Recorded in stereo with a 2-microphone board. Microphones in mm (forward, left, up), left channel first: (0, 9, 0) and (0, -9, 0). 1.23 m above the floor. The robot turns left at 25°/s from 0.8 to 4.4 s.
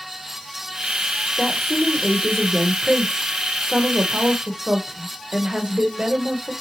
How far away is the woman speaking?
About 0.8 m.